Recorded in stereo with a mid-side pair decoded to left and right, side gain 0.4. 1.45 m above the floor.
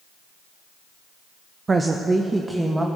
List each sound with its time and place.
1.7 s a woman speaking: 35° right, 0.7 m; by 2.9 s 15° right, 1.7 m